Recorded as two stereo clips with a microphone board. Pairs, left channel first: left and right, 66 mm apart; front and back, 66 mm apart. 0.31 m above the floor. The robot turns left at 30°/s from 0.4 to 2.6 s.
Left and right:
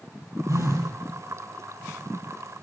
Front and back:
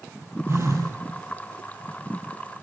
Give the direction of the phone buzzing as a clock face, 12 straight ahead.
4 o'clock.